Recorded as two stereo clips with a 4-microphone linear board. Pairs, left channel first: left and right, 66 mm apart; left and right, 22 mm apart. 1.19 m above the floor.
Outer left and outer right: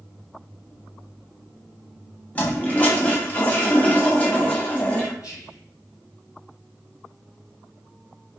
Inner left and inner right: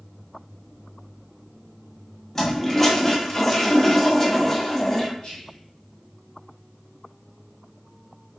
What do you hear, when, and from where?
2.4 s a toilet flushing: 20° left (ahead or behind), 0.9 m
5.2 s whispering: 65° left (ahead or behind), 2.5 m